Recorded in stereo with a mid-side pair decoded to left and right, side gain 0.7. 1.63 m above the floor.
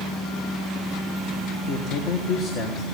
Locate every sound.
1.7 s a man speaking: 50° left, 1.7 m